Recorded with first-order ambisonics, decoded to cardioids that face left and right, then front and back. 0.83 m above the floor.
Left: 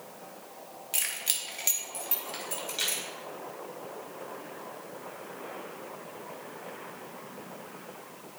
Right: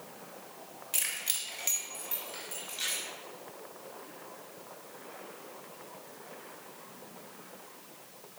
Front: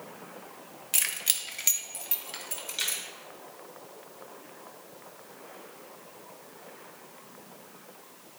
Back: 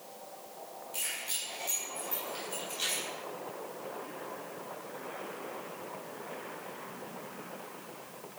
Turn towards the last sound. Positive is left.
turn(degrees=30)